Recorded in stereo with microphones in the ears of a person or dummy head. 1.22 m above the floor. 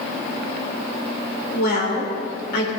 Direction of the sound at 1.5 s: 60° left (ahead or behind).